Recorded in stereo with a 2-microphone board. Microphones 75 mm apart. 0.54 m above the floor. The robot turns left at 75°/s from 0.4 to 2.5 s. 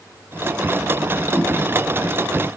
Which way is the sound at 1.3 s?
15° left (ahead or behind).